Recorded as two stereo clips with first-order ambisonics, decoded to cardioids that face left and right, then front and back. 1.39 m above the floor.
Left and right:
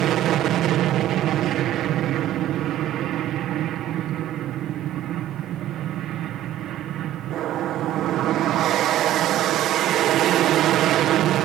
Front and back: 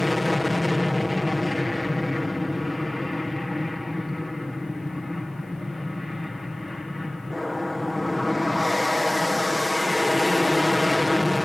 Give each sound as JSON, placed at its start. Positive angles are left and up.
{"t": 0.0, "sound": "an aircraft", "azimuth_deg": -85}